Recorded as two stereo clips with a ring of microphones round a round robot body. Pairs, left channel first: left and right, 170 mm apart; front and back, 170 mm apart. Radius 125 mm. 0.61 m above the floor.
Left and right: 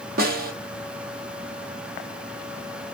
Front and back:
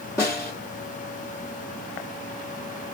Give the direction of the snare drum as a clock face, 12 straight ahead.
2 o'clock.